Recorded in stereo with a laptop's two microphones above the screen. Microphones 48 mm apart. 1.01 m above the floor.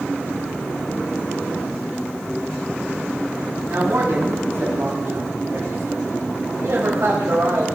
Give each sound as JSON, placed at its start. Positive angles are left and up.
{"t": 3.7, "sound": "a man speaking", "side_deg": -60, "distance_m": 6.5}